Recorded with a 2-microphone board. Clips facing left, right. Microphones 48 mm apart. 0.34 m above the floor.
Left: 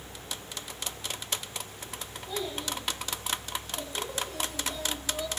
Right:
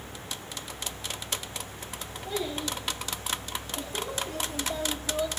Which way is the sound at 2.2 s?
45° right (ahead or behind).